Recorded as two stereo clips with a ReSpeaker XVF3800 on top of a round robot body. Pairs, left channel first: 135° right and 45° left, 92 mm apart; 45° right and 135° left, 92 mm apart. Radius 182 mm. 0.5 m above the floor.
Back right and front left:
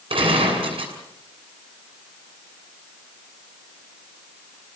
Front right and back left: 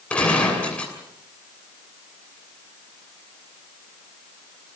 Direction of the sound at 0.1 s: 30° left.